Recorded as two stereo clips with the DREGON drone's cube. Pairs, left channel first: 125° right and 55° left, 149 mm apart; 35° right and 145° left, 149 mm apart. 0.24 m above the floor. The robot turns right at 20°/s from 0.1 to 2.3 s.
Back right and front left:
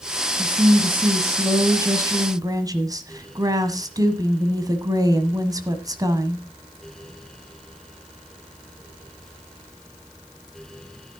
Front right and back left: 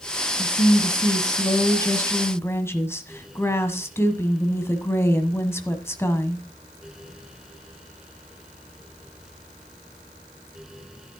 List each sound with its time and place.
0.4 s a woman speaking: 15° right, 1.3 m; by 6.5 s 20° left, 1.3 m